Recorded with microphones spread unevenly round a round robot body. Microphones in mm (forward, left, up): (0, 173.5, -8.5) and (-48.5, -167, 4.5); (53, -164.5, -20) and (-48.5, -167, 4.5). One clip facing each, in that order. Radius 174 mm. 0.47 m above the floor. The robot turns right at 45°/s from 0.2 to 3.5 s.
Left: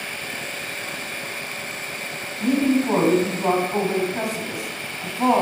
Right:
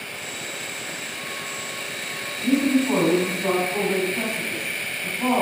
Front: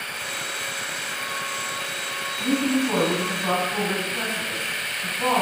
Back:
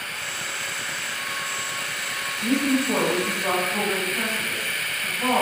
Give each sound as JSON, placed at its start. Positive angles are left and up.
{"t": 2.4, "sound": "a woman speaking", "azimuth_deg": 30, "distance_m": 3.5}